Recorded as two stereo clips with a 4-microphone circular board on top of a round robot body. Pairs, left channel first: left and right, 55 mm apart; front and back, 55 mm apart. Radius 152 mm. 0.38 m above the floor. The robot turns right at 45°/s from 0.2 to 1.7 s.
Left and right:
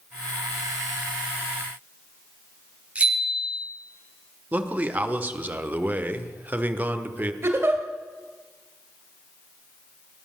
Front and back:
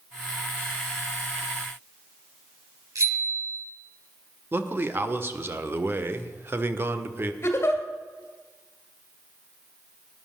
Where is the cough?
I don't hear a cough.